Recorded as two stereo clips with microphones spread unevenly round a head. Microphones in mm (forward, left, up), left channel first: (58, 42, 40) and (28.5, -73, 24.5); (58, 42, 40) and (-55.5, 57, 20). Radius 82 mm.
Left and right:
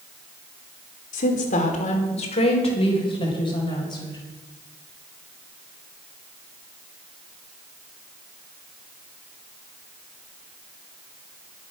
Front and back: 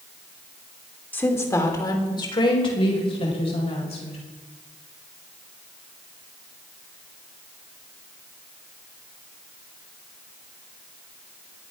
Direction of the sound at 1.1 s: 70° left.